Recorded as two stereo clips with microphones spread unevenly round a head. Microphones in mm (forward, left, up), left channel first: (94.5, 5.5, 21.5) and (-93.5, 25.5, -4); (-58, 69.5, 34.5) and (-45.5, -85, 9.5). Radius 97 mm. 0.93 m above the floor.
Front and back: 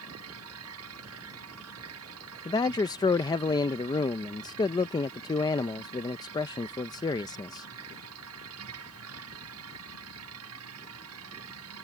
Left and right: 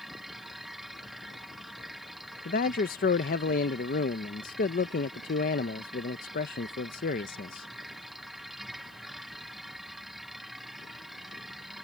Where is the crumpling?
I don't hear crumpling.